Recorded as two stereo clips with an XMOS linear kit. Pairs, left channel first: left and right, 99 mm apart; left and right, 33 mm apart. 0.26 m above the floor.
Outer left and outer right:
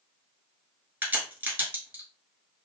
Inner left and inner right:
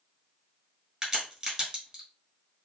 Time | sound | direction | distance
1.0 | a crack | 20° right (ahead or behind) | 1.2 m